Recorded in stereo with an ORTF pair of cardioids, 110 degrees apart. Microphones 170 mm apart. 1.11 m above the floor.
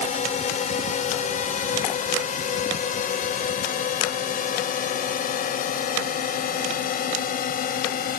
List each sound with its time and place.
0.0 s a drone: 50° left; by 8.2 s 60° left